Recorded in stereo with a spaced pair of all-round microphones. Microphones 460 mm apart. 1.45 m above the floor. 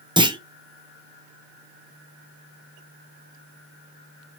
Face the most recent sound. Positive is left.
turn(degrees=-10)  # may be behind; listen again after turning